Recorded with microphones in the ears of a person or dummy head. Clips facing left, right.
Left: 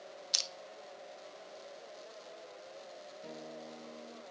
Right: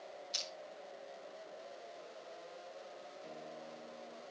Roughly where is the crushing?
Left.